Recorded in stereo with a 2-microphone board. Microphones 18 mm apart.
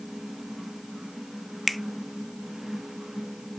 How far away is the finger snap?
About 0.5 m.